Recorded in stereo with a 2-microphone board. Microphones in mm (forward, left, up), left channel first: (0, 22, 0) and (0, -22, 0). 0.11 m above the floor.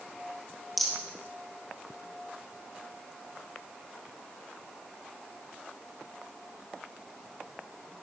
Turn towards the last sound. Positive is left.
turn(degrees=0)  # may be behind; listen again after turning